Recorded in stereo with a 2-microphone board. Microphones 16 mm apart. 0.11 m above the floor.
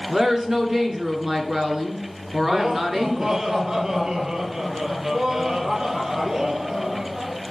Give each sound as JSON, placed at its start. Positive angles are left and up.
{"t": 0.1, "sound": "a woman speaking", "side_deg": -25, "distance_m": 1.7}
{"t": 2.4, "sound": "laughter", "side_deg": -45, "distance_m": 2.5}